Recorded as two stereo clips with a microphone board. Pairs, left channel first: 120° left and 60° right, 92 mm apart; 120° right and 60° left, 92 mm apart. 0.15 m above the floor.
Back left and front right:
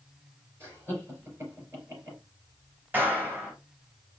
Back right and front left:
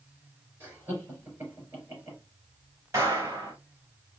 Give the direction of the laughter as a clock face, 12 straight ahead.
12 o'clock.